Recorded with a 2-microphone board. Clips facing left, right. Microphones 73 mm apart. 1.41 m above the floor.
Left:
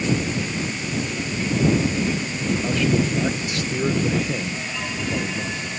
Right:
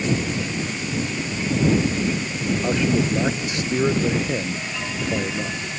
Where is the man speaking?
20° right (ahead or behind).